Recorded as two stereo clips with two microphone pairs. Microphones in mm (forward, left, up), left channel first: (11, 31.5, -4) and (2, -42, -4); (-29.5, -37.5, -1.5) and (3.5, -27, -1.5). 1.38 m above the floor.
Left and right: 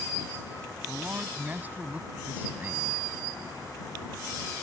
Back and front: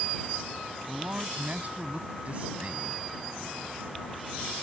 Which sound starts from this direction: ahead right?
A man speaking, at 0.9 s.